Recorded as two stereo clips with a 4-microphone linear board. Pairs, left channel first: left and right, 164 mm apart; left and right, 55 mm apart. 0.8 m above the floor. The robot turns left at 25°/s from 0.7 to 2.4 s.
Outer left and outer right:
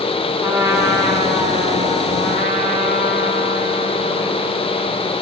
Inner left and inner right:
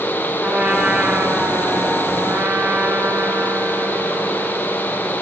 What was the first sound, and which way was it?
A trumpet, 15° right.